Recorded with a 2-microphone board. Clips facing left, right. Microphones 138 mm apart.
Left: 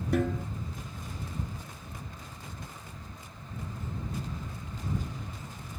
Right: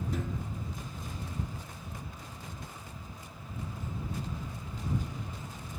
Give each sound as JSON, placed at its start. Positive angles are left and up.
{"t": 0.1, "sound": "a snare drum", "side_deg": 70}